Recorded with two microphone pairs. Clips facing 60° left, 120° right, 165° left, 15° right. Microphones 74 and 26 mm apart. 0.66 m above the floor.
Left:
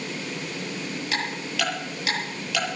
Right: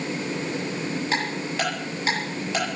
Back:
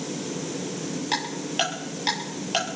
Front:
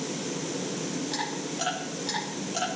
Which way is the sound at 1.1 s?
Straight behind.